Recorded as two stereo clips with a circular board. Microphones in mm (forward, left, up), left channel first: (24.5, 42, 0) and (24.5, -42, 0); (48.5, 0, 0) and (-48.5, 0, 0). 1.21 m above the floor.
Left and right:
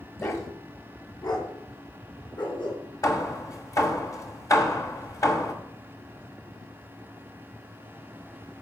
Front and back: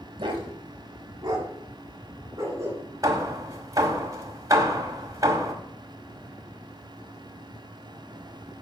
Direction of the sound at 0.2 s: 140° left.